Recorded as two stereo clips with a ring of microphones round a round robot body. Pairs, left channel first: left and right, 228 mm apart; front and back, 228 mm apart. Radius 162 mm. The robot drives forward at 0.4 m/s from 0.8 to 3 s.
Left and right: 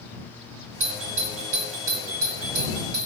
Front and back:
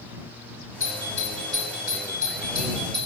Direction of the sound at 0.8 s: 80° right.